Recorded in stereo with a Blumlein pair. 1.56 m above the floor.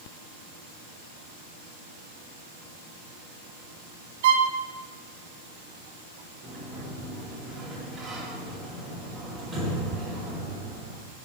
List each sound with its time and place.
4.2 s a violin: 55° right, 0.9 m
6.4 s a sliding door: 10° right, 2 m